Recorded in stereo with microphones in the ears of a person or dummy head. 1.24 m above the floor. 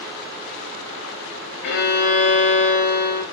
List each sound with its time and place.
1.6 s a violin: 55° left (ahead or behind), 1.1 m